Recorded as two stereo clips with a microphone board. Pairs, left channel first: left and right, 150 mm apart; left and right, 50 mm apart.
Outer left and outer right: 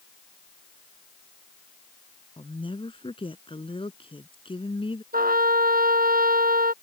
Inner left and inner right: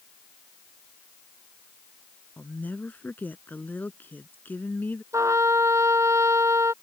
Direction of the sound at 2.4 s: 35° left (ahead or behind).